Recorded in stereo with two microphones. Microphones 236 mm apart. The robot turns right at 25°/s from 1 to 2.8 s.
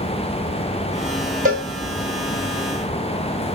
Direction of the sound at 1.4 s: 35° right (ahead or behind).